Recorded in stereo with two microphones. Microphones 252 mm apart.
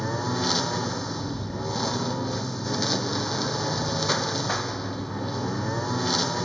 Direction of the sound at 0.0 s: Centre (ahead or behind).